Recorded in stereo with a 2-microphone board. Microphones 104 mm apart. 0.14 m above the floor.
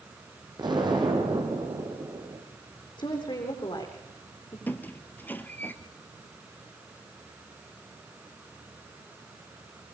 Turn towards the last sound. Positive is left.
turn(degrees=15)  # may be behind; listen again after turning